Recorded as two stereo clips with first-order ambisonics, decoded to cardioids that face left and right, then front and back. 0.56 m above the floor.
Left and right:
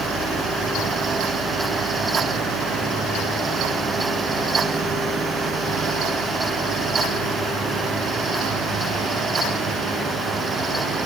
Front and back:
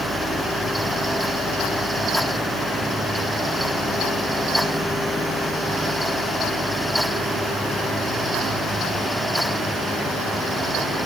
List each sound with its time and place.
Only background noise.